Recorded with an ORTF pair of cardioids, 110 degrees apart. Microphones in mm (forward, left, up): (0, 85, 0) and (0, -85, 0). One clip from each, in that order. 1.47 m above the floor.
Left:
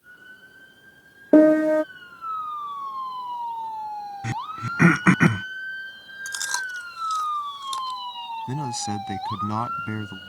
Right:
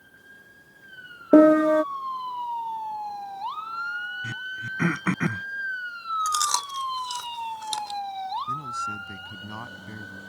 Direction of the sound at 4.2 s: 45° left.